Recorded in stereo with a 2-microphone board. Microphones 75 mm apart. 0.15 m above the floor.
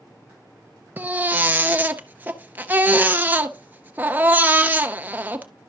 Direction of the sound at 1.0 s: 25° right (ahead or behind).